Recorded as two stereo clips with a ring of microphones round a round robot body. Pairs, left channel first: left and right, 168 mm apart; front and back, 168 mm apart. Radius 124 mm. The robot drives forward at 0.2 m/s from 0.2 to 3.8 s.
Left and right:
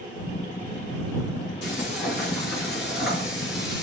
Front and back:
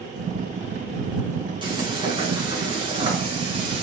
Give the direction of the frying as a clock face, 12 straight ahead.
8 o'clock.